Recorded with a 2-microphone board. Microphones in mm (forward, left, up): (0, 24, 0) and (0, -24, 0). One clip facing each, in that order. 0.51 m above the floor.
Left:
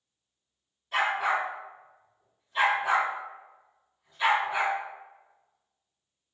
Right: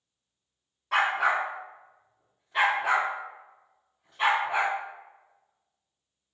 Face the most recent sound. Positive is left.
turn(degrees=-65)  # may be behind; listen again after turning